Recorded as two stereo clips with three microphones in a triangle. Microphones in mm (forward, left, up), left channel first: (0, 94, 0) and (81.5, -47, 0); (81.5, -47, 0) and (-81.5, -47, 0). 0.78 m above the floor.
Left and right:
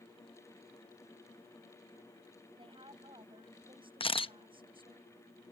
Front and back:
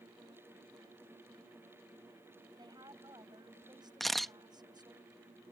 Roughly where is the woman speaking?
Behind right.